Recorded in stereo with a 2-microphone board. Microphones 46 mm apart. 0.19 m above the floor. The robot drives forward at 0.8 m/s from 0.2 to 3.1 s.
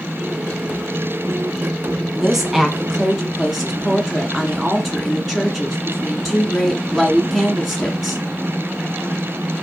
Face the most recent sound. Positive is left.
turn(degrees=-5)  # may be behind; listen again after turning